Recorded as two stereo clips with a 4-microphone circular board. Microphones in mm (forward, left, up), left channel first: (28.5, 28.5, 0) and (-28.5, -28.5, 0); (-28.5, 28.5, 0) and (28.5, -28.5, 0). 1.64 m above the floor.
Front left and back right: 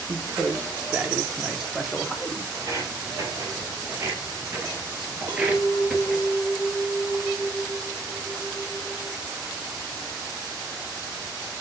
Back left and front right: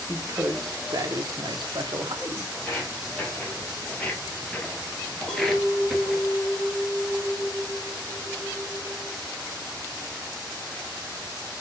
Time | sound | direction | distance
0.1 | a man speaking | 95° right | 1.3 m
2.5 | footsteps | 160° right | 3 m
5.3 | a clink | 140° right | 2.0 m